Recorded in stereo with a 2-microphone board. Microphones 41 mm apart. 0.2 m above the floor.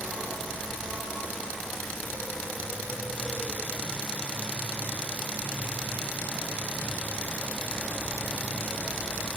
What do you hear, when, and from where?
0.0 s an insect: 50° right (ahead or behind), 5 m